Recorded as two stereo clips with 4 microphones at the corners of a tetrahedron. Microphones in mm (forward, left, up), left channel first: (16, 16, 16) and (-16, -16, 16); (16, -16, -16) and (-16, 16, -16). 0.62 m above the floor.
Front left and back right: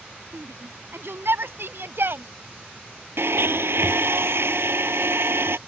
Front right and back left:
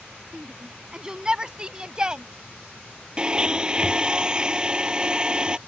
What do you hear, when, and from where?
0.3 s a shout: 155° right; by 2.2 s 160° right
3.2 s a blender: 155° right